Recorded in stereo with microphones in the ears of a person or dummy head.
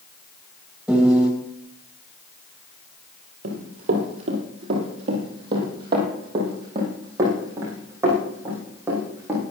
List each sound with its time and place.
0.9 s a piano: centre (ahead or behind), 2.5 m
3.4 s running footsteps: 50° right (ahead or behind), 3 m; by 9.4 s 10° right (ahead or behind), 5 m